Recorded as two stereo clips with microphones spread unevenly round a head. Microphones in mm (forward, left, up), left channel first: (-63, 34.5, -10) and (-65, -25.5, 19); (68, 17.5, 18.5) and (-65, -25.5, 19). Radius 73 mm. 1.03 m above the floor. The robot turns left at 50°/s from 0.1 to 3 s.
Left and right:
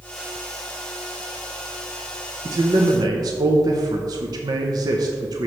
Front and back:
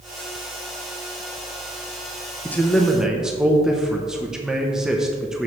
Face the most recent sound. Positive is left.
turn(degrees=-80)